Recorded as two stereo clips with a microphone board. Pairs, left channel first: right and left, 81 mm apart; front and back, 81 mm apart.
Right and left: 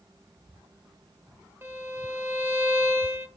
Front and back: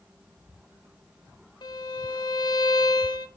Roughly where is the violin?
Ahead left.